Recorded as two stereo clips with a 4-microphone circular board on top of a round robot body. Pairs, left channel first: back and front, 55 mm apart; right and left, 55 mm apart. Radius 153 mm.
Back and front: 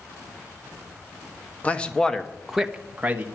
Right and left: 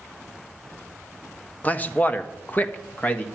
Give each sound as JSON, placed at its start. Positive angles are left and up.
{"t": 1.6, "sound": "a man speaking", "azimuth_deg": -130, "distance_m": 1.3}